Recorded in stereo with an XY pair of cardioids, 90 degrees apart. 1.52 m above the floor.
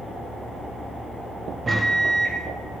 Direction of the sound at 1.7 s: 35° right.